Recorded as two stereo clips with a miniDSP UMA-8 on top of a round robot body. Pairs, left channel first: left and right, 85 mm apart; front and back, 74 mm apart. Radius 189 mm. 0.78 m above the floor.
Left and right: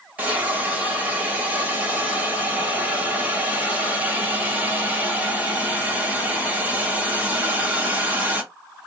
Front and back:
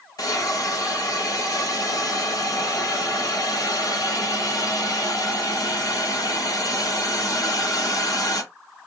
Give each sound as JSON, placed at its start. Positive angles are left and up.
{"t": 0.2, "sound": "a hiss", "azimuth_deg": -20, "distance_m": 1.3}